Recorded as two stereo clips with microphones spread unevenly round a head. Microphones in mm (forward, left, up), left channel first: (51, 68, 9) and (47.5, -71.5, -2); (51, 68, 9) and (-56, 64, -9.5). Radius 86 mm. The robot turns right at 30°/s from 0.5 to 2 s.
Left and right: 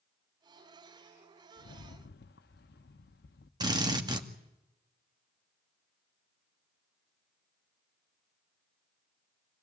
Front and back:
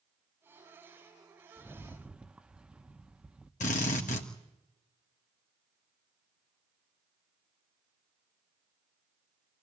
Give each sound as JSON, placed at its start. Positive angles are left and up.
{"t": 1.6, "sound": "a rattle", "azimuth_deg": 85, "distance_m": 0.9}
{"t": 3.6, "sound": "a drill", "azimuth_deg": -35, "distance_m": 2.0}